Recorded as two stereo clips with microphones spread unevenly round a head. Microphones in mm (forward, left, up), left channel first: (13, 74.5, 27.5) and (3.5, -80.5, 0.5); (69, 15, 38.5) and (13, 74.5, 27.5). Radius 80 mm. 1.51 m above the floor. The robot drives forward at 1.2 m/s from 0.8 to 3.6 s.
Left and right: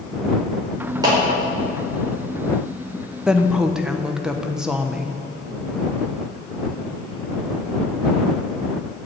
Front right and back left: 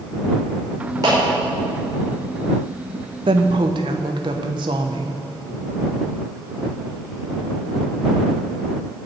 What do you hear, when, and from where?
1.0 s a clap: 160° right, 5 m; by 1.2 s 165° right, 5 m
3.3 s a woman speaking: straight behind, 0.7 m